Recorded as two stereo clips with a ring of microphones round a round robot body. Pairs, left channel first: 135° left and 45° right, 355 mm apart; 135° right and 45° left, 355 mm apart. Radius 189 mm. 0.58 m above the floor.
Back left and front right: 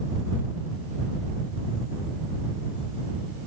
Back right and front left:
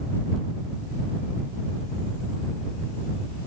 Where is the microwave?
No microwave in this recording.